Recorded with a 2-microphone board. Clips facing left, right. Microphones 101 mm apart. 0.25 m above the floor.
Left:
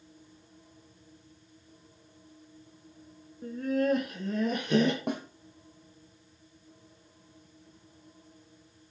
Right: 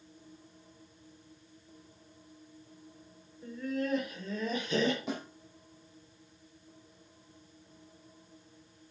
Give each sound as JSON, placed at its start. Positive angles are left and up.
{"t": 3.4, "sound": "laughter", "side_deg": 50, "distance_m": 2.5}
{"t": 5.1, "sound": "a snare drum", "side_deg": 65, "distance_m": 3.5}